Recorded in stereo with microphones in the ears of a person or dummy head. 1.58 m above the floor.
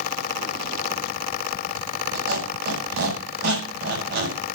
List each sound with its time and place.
2.1 s a squeak: 55° right (ahead or behind), 6.5 m